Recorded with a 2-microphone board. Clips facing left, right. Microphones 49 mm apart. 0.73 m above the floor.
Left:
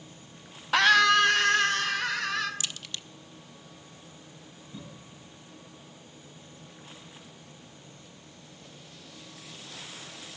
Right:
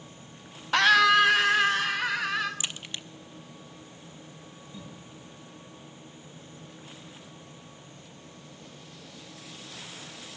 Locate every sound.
0.7 s a scream: 5° left (ahead or behind), 0.5 m; by 2.5 s 10° right (ahead or behind), 2.5 m
2.6 s a crack: 25° right (ahead or behind), 0.6 m
4.7 s a cough: 25° left (ahead or behind), 7.5 m